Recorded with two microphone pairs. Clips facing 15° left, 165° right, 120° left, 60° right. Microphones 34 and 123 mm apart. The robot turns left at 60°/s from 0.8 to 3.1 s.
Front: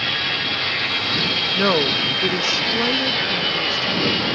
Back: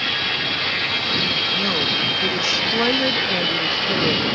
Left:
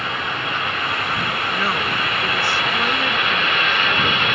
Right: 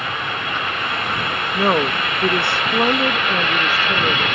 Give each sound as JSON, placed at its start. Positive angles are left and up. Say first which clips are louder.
{"t": 1.5, "sound": "a woman speaking", "louder": "front 2 dB, right 8 dB", "azimuth_deg": -15}